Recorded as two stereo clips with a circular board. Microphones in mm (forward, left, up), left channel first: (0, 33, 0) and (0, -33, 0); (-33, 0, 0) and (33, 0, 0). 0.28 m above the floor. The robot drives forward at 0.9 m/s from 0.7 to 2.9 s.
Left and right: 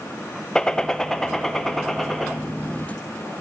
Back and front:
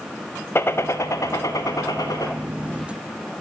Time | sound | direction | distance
0.6 | a gunshot | 165° left | 0.7 m